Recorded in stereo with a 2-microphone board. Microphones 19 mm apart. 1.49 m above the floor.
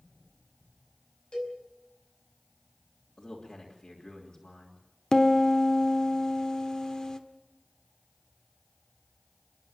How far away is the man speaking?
About 3 m.